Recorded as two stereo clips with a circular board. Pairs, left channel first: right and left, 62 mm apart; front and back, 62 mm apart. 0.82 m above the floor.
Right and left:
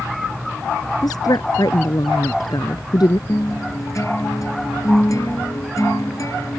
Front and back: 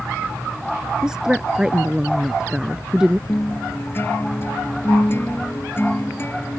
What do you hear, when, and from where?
1.0 s a woman speaking: 100° right
3.3 s a guitar: 55° right